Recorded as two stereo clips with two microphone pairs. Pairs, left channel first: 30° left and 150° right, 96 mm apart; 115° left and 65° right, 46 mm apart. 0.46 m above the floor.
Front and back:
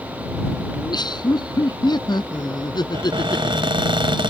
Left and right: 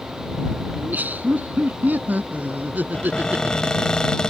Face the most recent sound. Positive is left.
turn(degrees=-170)